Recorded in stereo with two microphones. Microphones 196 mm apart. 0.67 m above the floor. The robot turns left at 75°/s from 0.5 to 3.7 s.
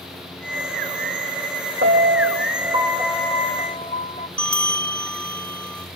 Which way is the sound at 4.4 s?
5° left (ahead or behind).